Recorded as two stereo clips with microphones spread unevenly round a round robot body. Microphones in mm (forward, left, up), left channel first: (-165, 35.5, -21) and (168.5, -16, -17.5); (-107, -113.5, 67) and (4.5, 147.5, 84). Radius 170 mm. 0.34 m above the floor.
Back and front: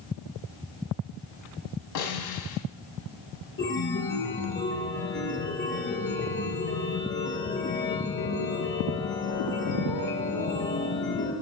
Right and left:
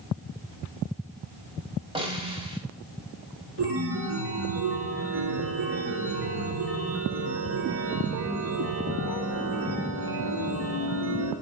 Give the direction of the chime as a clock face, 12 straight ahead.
8 o'clock.